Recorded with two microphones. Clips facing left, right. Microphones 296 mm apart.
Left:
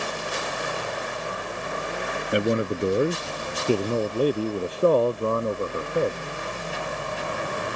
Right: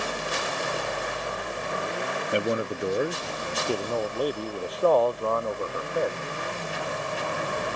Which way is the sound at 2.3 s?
20° left (ahead or behind).